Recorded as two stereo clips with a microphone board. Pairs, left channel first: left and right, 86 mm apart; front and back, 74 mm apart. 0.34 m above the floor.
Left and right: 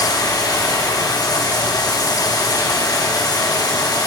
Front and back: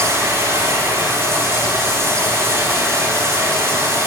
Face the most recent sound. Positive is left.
turn(degrees=130)